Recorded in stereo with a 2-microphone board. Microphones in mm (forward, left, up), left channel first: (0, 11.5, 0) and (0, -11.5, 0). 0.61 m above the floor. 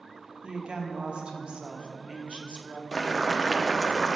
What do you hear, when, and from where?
0.4 s a woman speaking: 50° right (ahead or behind), 0.8 m
2.9 s boiling: 30° left (ahead or behind), 0.6 m